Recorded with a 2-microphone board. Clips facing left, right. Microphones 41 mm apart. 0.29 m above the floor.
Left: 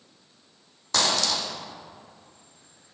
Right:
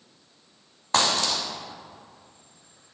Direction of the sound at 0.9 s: 35° right (ahead or behind).